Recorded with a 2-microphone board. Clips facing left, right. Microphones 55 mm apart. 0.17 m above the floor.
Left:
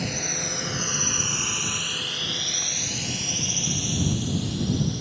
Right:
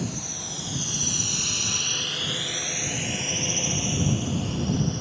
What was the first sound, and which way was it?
A drone, 60° left (ahead or behind).